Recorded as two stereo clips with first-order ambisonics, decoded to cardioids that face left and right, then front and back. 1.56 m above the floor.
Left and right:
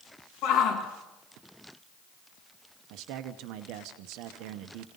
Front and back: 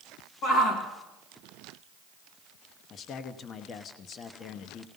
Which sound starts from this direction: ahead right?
A man speaking, at 2.9 s.